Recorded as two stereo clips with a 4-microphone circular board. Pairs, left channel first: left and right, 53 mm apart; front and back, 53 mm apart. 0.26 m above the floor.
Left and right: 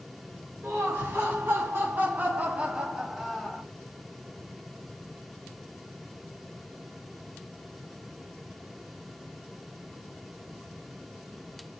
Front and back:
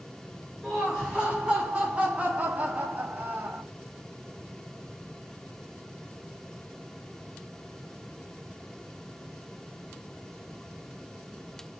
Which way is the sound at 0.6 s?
110° right.